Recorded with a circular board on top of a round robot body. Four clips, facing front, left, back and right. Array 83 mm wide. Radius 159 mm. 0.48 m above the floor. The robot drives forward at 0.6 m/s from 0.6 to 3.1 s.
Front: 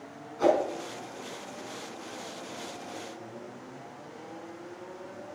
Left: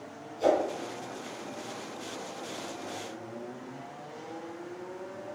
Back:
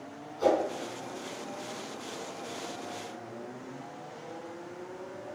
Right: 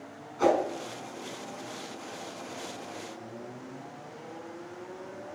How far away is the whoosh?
About 5 m.